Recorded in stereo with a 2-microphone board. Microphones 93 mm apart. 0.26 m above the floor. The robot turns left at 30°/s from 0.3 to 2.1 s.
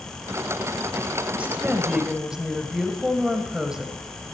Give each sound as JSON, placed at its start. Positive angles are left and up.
{"t": 1.3, "sound": "a woman speaking", "side_deg": -15, "distance_m": 1.3}